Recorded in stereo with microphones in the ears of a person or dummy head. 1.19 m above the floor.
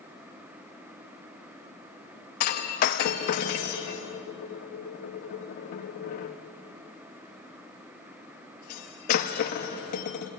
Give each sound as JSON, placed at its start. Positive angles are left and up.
{"t": 2.4, "sound": "breaking glass", "side_deg": 45, "distance_m": 0.7}